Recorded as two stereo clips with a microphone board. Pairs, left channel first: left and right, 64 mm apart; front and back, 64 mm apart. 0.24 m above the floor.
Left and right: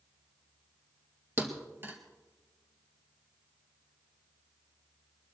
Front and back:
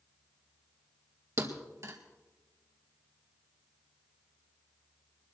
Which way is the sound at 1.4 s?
145° right.